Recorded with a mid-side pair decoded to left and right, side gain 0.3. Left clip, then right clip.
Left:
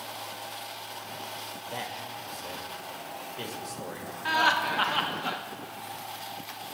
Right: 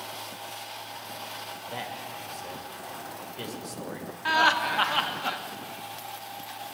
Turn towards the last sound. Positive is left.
turn(degrees=-25)